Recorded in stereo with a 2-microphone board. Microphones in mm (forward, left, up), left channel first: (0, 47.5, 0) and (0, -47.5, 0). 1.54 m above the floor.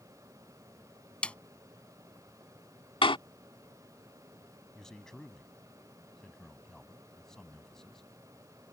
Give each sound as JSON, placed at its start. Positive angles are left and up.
{"t": 1.2, "sound": "a snare drum", "side_deg": 10}
{"t": 3.0, "sound": "a door slam", "side_deg": 70}
{"t": 4.8, "sound": "a man speaking", "side_deg": 5}